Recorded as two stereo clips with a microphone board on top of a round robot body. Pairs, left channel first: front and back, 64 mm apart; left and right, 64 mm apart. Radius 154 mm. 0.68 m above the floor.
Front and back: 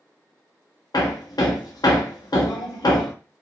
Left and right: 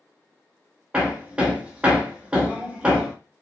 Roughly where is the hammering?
Ahead.